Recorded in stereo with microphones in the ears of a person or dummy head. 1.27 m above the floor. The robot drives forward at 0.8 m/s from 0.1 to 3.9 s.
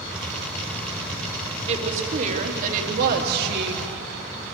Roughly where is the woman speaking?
Right.